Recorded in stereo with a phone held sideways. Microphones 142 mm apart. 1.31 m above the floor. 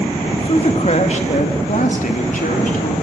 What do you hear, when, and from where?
0.3 s a man speaking: 40° left (ahead or behind), 2 m; by 3.0 s 75° left (ahead or behind), 3 m